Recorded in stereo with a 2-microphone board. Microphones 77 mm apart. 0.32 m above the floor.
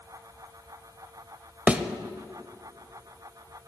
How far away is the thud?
About 0.6 m.